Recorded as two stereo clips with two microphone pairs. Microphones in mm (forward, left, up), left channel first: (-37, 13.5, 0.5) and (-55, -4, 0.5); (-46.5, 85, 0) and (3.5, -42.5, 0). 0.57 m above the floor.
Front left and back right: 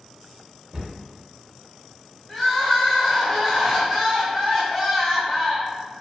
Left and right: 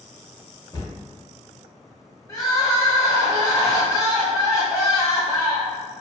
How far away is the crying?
About 0.9 m.